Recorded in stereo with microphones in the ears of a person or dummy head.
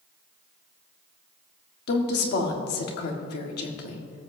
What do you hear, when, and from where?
1.9 s a woman speaking: 65° left (ahead or behind), 1.5 m